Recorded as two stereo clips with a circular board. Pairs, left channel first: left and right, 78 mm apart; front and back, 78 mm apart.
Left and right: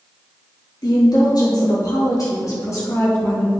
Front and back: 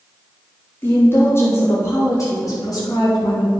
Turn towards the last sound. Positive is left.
turn(degrees=30)